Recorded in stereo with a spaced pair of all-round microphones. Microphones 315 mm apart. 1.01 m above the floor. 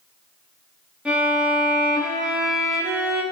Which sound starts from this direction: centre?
A violin, at 1.1 s.